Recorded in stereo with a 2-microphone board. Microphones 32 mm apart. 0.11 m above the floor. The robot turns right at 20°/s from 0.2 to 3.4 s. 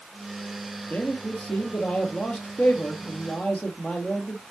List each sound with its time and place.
0.9 s a man speaking: 75° left, 1.9 m; by 4.4 s 125° left, 1.9 m